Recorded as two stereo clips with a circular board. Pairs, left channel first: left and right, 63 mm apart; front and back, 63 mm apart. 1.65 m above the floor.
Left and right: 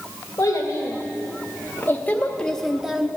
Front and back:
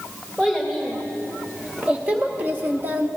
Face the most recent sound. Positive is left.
turn(degrees=-155)